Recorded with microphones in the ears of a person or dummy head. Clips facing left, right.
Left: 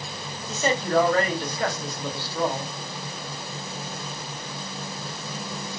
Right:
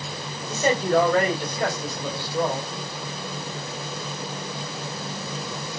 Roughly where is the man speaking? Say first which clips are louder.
Right 3 dB; centre.